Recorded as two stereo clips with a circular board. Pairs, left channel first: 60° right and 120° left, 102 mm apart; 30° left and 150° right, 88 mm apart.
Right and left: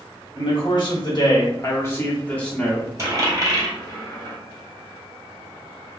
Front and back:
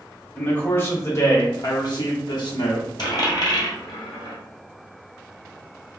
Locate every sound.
0.3 s a man speaking: 40° right, 1.4 m; by 2.9 s 30° left, 1.3 m
3.0 s a dropped coin: 65° left, 1.8 m